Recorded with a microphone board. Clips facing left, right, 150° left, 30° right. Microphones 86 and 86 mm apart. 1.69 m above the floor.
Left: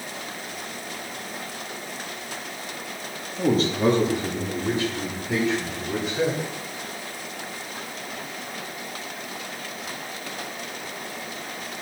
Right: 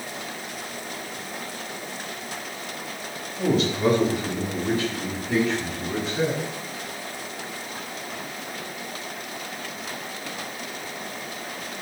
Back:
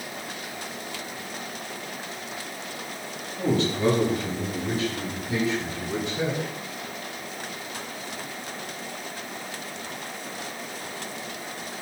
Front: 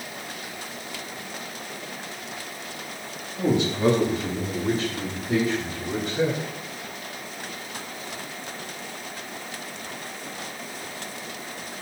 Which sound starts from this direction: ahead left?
A man speaking, at 3.4 s.